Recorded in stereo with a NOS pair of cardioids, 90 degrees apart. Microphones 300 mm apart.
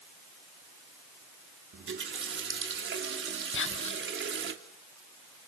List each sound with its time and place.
1.7 s a running tap: 40° right, 3 m
3.5 s whispering: 40° left, 2.5 m